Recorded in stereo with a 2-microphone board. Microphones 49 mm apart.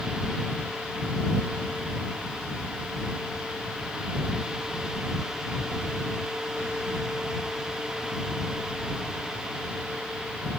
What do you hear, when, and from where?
Only background noise.